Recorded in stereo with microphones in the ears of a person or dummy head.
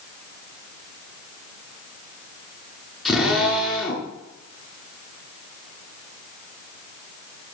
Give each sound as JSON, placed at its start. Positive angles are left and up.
{"t": 3.0, "sound": "a drill", "side_deg": 5, "distance_m": 9.0}